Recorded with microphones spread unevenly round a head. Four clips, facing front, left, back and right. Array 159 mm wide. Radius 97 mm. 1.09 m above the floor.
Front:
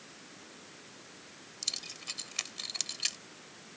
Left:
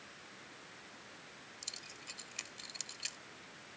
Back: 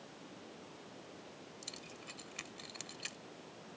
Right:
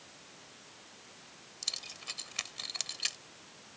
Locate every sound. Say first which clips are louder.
1.6 s keys jangling: right 3 dB, front 1 dB; 55° right